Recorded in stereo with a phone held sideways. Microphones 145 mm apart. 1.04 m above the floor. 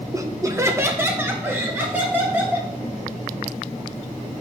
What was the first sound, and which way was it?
Laughter, 20° right (ahead or behind).